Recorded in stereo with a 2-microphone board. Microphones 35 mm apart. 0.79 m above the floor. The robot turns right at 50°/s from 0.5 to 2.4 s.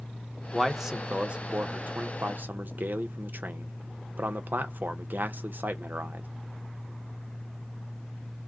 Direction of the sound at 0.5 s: 5° left (ahead or behind).